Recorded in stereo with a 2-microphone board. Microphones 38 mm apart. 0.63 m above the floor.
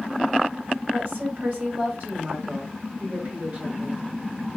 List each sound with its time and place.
0.9 s a woman speaking: 50° right (ahead or behind), 2.5 m